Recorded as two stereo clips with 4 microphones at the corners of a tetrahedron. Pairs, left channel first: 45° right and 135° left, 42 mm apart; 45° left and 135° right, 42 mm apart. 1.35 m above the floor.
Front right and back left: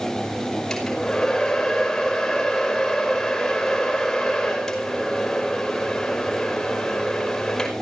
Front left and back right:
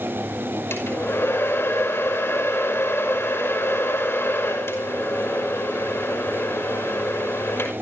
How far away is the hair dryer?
About 5.5 m.